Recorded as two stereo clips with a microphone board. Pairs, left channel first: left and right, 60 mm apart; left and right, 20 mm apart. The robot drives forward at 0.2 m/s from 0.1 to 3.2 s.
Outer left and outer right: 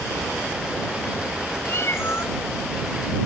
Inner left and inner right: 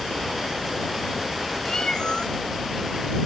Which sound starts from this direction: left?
A cat meowing, at 1.6 s.